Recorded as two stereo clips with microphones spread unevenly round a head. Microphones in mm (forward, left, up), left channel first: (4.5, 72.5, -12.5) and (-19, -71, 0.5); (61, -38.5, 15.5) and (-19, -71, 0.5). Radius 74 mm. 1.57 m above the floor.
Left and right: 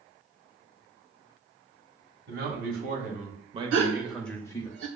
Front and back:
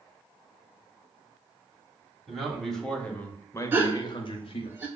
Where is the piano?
I don't hear a piano.